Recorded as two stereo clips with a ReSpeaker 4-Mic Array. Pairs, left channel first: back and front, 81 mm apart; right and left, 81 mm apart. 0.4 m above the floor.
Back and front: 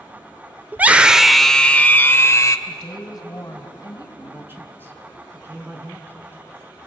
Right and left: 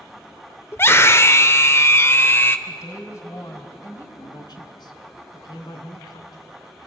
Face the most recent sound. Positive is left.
turn(degrees=-60)